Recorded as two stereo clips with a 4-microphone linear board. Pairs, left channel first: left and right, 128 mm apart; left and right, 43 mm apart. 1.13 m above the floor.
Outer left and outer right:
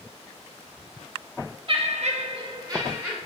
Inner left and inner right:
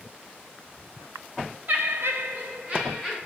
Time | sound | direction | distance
1.7 | laughter | 45° right (ahead or behind) | 0.7 m